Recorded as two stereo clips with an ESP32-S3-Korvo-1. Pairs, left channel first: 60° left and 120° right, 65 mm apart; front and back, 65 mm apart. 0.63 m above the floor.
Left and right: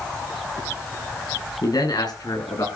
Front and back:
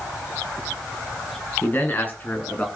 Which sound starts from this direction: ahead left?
A man speaking, at 1.6 s.